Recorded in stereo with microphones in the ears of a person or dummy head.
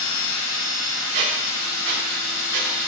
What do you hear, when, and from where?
0.0 s a machine running: 70° left (ahead or behind), 1.4 m
1.1 s a squeak: 50° right (ahead or behind), 0.5 m